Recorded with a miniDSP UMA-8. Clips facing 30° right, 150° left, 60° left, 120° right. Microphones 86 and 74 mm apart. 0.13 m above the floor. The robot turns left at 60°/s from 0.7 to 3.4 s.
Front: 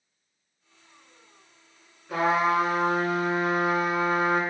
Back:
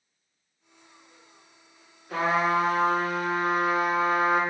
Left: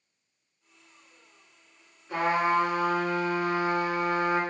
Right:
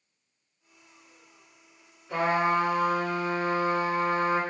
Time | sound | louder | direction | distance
2.1 | a trumpet | front 1 dB, even | 10° right | 1.4 m